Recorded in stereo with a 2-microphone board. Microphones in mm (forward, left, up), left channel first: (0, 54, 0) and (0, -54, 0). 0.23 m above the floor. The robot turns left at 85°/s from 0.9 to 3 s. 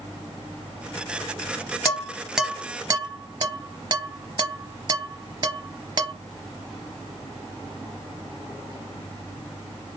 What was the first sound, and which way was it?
Dishes clattering, 30° left (ahead or behind).